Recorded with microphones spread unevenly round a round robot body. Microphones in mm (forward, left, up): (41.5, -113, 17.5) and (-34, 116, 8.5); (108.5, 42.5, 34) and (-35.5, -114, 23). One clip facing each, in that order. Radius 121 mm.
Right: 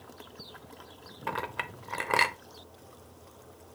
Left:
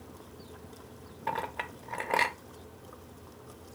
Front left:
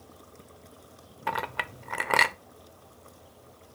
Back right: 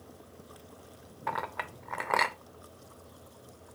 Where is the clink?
Straight ahead, 0.6 m.